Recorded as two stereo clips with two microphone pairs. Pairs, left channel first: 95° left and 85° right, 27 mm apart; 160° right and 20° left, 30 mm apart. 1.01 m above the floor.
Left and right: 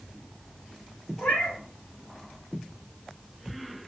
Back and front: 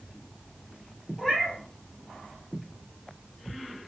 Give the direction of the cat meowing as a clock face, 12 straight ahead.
8 o'clock.